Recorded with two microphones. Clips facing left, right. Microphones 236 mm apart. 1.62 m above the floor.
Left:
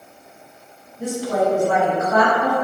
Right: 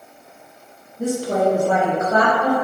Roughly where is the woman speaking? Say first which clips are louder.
Right 2 dB; right.